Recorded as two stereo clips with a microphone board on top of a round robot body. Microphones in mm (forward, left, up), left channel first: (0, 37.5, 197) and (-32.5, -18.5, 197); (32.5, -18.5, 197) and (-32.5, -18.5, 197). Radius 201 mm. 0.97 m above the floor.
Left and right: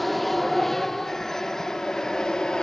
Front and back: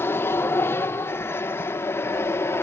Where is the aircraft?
30° right; by 2.6 s 15° right.